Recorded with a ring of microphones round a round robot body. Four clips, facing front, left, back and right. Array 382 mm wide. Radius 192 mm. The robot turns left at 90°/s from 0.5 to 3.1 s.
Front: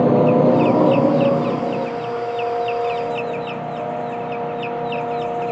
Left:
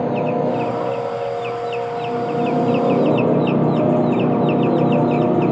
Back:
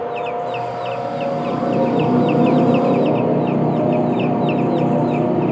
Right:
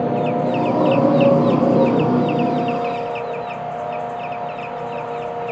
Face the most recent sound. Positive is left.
turn(degrees=130)